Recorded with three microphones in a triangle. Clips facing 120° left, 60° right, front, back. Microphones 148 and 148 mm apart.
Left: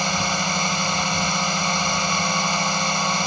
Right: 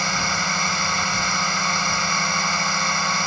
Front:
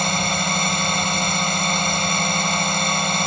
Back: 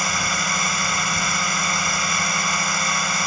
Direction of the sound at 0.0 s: 55° left.